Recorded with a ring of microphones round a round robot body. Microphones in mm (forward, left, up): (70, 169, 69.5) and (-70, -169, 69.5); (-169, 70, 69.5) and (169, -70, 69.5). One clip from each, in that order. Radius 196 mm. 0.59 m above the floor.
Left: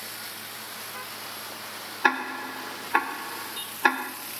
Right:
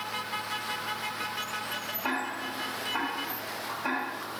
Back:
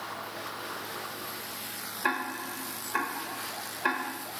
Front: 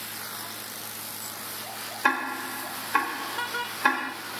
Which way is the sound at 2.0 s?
55° left.